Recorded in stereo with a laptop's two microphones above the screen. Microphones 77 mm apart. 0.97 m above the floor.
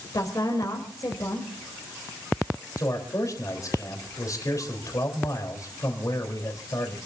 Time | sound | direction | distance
0.1 | a woman speaking | 55° left (ahead or behind) | 3.5 m
2.8 | a man speaking | 50° left (ahead or behind) | 3.5 m